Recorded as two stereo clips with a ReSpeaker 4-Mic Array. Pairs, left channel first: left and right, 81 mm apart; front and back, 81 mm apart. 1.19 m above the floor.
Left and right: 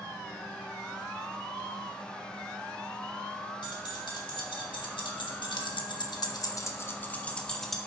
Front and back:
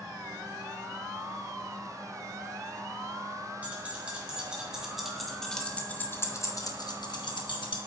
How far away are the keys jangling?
About 2 m.